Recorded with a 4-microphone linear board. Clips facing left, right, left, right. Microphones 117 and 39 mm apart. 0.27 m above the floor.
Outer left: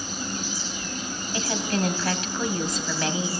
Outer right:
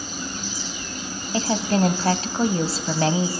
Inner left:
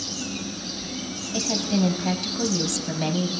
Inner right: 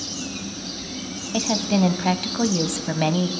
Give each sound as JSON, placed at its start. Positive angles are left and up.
{"t": 1.3, "sound": "a woman speaking", "side_deg": -35, "distance_m": 1.4}